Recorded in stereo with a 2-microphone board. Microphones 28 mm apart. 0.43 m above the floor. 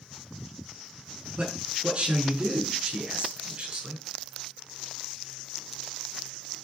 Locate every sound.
1.4 s a man speaking: 50° right (ahead or behind), 5 m